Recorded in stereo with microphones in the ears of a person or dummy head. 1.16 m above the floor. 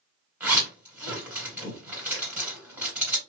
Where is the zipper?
15° right (ahead or behind), 2 m.